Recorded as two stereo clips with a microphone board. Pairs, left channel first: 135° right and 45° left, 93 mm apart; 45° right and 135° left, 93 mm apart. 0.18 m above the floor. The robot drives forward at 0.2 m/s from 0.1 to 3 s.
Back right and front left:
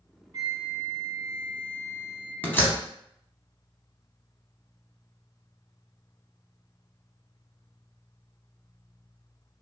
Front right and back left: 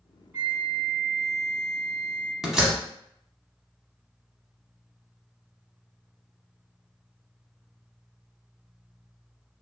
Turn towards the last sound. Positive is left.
turn(degrees=-155)